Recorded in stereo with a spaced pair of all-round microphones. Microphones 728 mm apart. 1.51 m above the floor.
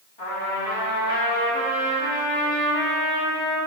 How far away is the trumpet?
About 1.9 m.